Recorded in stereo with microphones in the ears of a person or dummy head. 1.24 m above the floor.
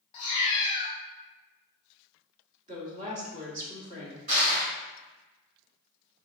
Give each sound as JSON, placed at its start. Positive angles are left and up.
{"t": 0.1, "sound": "a cat meowing", "side_deg": 30, "distance_m": 0.7}
{"t": 2.7, "sound": "a woman speaking", "side_deg": -40, "distance_m": 1.1}
{"t": 4.3, "sound": "crushing", "side_deg": -40, "distance_m": 2.0}